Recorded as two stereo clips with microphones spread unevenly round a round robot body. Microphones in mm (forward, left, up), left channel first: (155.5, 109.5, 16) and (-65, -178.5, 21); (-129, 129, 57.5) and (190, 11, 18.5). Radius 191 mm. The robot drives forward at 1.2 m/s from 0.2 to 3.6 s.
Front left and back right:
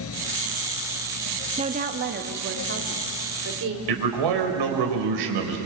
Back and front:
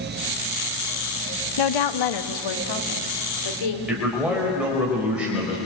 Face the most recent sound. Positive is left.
turn(degrees=-110)